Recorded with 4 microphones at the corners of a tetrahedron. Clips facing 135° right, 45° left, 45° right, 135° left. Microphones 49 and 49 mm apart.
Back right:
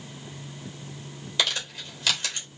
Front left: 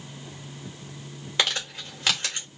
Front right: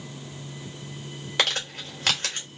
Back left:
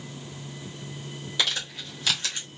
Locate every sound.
1.4 s crumpling: 5° right, 2.5 m